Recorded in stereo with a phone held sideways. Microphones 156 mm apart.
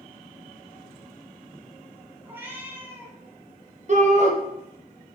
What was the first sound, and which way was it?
A cat meowing, 15° right (ahead or behind).